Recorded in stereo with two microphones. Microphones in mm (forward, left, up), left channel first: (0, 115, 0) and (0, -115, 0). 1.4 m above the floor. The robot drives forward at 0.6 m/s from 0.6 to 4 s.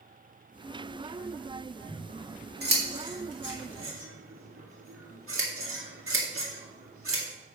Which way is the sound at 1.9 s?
40° right (ahead or behind).